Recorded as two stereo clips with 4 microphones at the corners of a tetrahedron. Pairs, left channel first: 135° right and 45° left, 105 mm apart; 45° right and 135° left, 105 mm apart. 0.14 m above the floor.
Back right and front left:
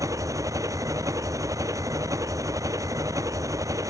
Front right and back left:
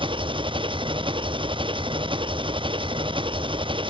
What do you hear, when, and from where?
0.0 s an engine running: 100° left